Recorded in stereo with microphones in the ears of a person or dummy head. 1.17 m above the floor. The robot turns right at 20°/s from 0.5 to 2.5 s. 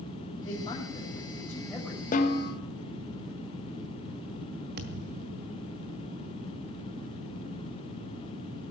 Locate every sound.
0.5 s a man speaking: 150° left, 5 m; by 2.0 s straight behind, 5 m
2.1 s a snare drum: 45° left (ahead or behind), 1.5 m; by 2.5 s 40° left (ahead or behind), 1.5 m
4.8 s a thud: 50° right (ahead or behind), 1.5 m